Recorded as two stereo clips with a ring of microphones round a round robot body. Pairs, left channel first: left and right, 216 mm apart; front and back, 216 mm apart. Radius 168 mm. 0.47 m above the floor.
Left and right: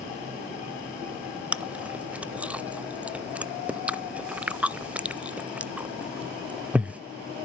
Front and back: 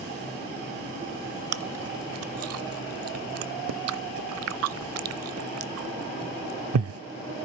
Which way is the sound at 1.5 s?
175° right.